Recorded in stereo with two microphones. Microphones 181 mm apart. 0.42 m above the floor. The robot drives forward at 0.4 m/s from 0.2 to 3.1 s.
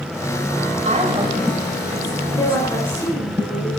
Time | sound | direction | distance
0.8 | a woman speaking | 40° right (ahead or behind) | 2 m
2.3 | a woman speaking | 20° left (ahead or behind) | 4.5 m